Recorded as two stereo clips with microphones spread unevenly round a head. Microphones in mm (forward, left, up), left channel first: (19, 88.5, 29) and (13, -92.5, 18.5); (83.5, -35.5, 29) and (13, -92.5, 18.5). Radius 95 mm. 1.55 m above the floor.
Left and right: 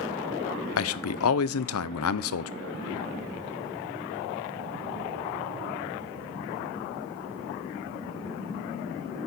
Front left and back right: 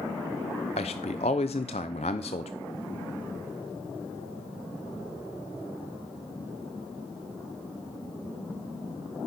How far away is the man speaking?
About 0.6 m.